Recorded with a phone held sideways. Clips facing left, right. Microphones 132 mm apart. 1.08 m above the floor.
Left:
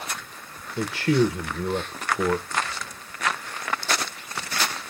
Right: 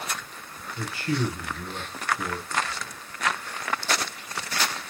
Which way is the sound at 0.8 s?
65° left (ahead or behind).